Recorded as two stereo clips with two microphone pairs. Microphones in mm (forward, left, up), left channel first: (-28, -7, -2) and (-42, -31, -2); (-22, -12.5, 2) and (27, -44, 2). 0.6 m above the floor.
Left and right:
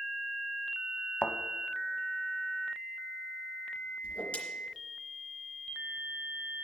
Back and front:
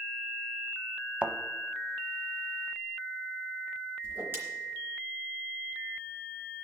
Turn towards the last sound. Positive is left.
turn(degrees=20)